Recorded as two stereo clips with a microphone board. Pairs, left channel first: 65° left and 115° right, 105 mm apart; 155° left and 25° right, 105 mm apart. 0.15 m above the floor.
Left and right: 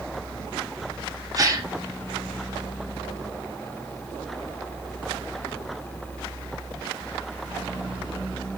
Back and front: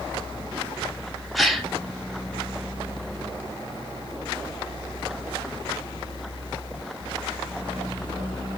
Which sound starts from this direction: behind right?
A gasp, at 1.4 s.